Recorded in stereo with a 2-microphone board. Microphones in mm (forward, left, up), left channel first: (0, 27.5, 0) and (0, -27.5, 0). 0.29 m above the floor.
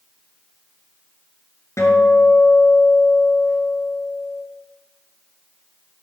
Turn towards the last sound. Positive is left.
turn(degrees=60)  # may be behind; listen again after turning